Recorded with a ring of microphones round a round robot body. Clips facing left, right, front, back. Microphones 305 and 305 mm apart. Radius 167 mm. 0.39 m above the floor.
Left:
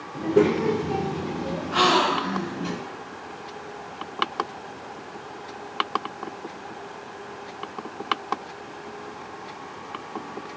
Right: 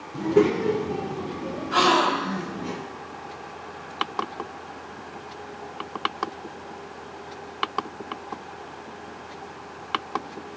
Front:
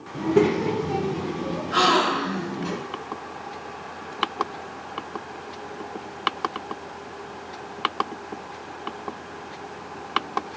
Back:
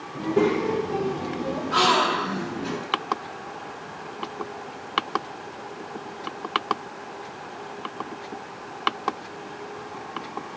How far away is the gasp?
About 1.6 m.